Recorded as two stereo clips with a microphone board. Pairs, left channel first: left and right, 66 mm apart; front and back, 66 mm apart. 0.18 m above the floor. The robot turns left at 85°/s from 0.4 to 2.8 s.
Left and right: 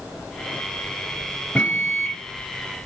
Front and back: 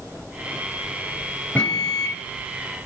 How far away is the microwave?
About 1.0 m.